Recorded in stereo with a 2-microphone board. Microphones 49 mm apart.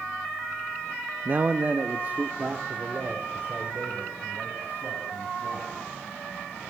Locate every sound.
1.2 s a man speaking: 40° right (ahead or behind), 0.8 m; by 5.8 s 35° right (ahead or behind), 6.5 m